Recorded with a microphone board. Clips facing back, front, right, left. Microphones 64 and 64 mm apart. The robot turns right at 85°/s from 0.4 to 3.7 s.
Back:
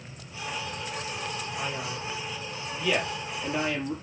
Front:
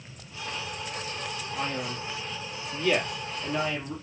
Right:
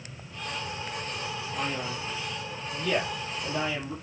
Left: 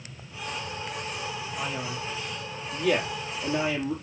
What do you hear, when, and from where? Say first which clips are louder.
1.5 s a man speaking: front 1 dB, right 2 dB; 50° right, 3.5 m; by 3.9 s 135° left, 3.5 m